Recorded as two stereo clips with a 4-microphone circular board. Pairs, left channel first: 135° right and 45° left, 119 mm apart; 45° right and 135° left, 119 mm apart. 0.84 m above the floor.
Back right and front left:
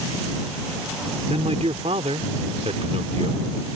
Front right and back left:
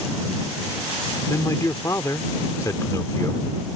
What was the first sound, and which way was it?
A man speaking, 20° left.